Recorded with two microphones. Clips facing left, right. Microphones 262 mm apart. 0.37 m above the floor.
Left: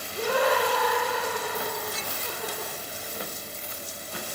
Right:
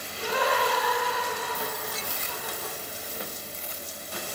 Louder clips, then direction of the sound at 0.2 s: Left 4 dB; 60° left (ahead or behind).